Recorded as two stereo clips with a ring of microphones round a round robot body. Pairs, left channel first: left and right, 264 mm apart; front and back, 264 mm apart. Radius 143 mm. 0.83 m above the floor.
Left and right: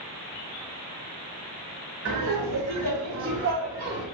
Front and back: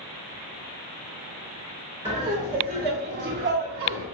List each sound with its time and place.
2.0 s laughter: 100° right, 1.5 m; by 4.0 s 155° right, 1.0 m